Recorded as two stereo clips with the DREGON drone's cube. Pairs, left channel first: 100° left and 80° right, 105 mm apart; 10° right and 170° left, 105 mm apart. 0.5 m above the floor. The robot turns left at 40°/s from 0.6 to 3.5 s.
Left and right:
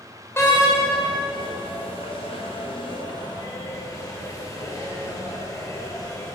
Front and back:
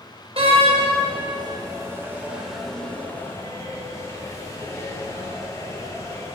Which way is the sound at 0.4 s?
160° left.